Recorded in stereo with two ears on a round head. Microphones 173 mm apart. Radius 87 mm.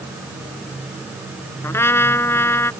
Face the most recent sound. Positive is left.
turn(degrees=15)  # may be behind; listen again after turning